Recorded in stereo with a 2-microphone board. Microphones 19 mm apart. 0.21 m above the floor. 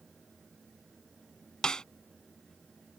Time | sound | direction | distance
1.6 | a snare drum | 50° left (ahead or behind) | ?